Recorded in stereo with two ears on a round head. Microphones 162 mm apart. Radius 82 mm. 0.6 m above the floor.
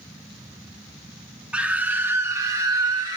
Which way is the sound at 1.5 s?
5° right (ahead or behind).